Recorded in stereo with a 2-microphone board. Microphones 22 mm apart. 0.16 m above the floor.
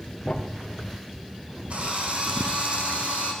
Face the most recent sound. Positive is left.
turn(degrees=-70)  # may be behind; listen again after turning